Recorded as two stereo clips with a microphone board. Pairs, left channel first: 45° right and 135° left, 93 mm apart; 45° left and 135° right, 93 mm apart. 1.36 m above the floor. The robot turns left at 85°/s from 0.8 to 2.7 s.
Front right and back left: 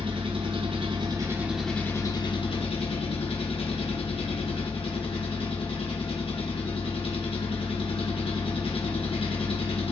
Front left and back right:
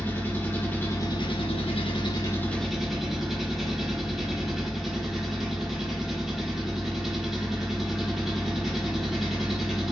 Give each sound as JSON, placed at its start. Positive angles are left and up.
{"t": 0.0, "sound": "an engine running", "azimuth_deg": 115, "distance_m": 1.0}